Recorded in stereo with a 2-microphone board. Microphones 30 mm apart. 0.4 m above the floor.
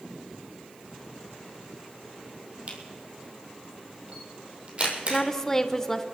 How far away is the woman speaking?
About 0.8 m.